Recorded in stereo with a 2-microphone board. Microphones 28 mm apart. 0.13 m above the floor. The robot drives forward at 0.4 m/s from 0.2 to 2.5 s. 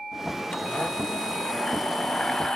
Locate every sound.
0.5 s a blender: 30° left (ahead or behind); by 2.6 s 25° left (ahead or behind)